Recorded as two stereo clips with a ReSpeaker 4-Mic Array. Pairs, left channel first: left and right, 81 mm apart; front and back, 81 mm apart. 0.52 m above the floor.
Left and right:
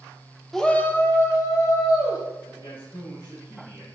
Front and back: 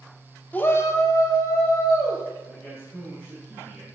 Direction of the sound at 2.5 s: 80° left.